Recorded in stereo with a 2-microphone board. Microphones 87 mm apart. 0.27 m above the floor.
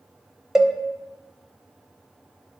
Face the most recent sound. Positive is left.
turn(degrees=-5)  # may be behind; listen again after turning